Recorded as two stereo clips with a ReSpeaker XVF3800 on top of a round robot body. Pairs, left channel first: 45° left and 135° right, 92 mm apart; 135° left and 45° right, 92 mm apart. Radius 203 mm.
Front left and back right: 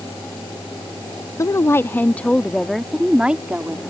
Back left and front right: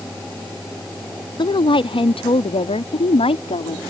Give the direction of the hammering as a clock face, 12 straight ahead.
No hammering in this recording.